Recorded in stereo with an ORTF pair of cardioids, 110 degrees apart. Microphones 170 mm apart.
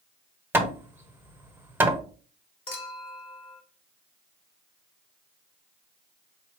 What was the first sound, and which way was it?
Hammering, 10° right.